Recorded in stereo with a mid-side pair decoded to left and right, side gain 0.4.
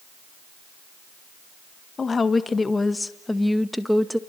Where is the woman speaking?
40° left, 1.6 m; by 4.2 s straight ahead, 1.8 m.